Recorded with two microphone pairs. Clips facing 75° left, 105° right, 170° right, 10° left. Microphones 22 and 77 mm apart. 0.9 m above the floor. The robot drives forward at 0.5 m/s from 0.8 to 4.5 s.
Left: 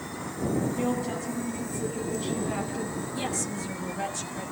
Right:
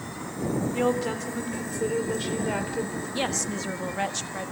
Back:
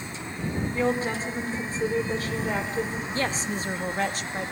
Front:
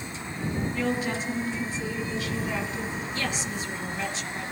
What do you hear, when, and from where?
0.7 s a woman speaking: 115° right, 3 m; by 3.0 s 135° right, 3.5 m
3.1 s a woman speaking: 125° right, 1.3 m; by 4.5 s 145° right, 1.7 m